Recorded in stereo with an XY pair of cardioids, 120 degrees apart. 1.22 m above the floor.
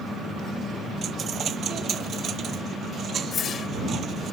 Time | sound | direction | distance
1.0 | a dropped coin | 45° right | ?
3.3 | a whoosh | 45° left | ?